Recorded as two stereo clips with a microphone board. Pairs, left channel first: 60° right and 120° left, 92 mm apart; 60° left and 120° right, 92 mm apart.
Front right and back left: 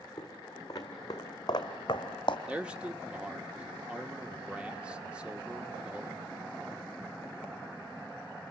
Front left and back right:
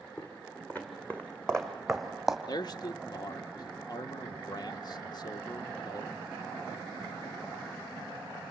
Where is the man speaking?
45° left, 0.9 m.